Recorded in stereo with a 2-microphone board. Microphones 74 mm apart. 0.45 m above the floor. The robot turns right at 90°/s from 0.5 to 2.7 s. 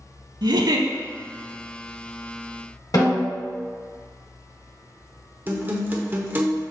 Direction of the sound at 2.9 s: 55° left (ahead or behind).